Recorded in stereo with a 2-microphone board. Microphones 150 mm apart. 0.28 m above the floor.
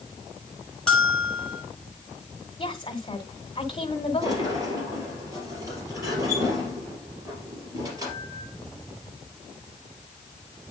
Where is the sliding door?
25° right (ahead or behind), 3 m.